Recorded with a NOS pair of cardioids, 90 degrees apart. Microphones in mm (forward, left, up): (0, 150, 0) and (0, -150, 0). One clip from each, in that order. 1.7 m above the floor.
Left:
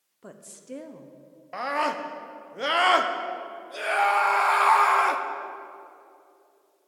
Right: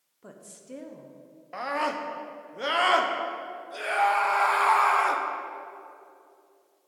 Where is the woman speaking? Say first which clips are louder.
Left 2 dB; 20° left, 1.0 m.